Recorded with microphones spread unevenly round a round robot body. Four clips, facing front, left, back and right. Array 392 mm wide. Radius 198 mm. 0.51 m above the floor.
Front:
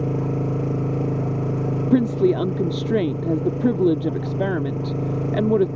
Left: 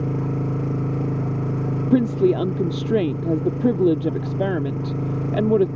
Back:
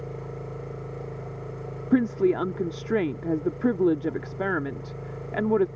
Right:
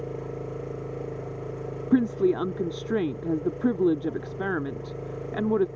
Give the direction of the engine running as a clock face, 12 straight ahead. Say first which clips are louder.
Left 8 dB, front 12 dB; 10 o'clock.